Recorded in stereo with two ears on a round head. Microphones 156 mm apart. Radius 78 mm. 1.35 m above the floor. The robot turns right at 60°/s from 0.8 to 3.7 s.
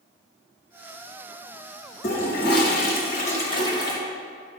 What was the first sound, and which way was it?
A toilet flushing, 55° left.